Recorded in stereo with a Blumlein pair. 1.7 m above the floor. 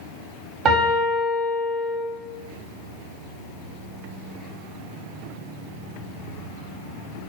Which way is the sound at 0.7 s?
30° right.